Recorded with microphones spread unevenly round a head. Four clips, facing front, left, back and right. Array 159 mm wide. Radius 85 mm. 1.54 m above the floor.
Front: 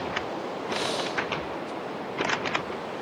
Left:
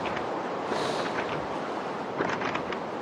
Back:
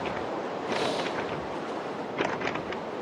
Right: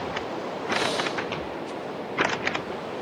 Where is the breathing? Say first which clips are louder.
Right 4 dB, back 1 dB; 145° right, 4 m.